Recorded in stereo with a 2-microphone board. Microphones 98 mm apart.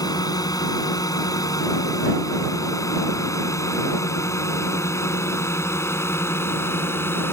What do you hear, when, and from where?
0.0 s a drone: 40° left (ahead or behind); by 7.3 s 25° left (ahead or behind)